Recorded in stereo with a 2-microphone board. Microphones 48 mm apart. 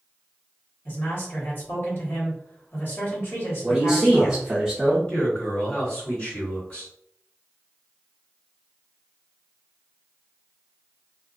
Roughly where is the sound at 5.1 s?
Left.